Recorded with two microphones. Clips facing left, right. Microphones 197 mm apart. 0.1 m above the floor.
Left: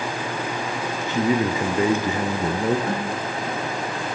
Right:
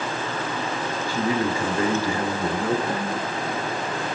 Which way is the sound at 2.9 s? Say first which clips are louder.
Left 1 dB; 60° left (ahead or behind).